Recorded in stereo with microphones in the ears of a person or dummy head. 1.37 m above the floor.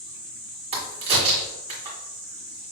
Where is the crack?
30° right (ahead or behind), 1.4 m.